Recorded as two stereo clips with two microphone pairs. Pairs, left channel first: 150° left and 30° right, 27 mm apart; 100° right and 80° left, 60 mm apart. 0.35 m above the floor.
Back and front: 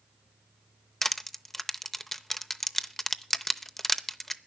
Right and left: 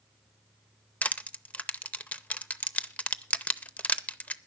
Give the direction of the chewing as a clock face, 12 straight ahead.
I don't hear chewing.